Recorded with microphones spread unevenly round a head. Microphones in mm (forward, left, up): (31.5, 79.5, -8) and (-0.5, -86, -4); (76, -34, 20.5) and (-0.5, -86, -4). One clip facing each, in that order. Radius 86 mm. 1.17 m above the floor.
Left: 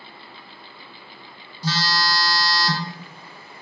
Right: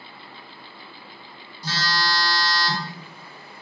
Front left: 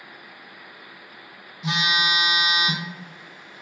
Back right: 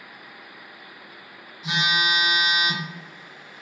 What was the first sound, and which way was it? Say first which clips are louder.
A phone buzzing: left 2 dB, even; 85° left.